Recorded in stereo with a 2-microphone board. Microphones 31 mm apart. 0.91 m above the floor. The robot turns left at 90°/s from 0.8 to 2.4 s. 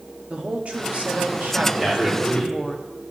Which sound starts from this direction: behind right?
A man speaking, at 1.8 s.